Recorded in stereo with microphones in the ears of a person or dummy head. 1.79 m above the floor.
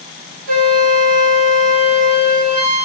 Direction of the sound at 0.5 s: 45° right (ahead or behind).